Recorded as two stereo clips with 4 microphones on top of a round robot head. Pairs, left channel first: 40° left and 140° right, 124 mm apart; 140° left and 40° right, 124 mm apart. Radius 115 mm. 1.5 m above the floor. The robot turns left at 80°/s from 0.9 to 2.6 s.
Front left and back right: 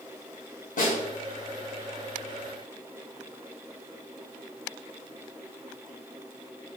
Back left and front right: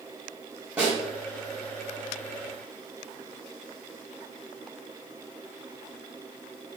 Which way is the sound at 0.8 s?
40° left.